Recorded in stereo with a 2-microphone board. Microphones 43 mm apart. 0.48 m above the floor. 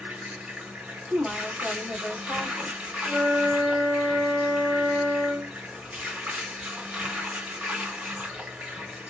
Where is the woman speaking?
45° right (ahead or behind), 1.8 m.